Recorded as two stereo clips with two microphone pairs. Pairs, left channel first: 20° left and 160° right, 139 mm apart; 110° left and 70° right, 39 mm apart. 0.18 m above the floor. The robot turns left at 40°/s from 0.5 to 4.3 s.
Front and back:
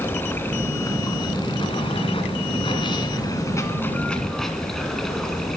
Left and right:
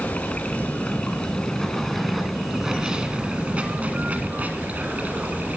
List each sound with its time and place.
0.0 s running water: 85° left, 1.7 m; by 5.6 s 65° right, 1.7 m